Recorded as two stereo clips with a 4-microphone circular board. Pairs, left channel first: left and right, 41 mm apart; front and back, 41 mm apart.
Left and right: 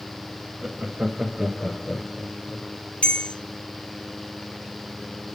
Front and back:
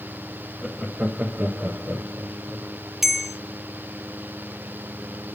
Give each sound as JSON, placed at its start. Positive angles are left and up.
{"t": 0.6, "sound": "laughter", "azimuth_deg": -105, "distance_m": 0.8}
{"t": 3.0, "sound": "a bell", "azimuth_deg": 100, "distance_m": 0.6}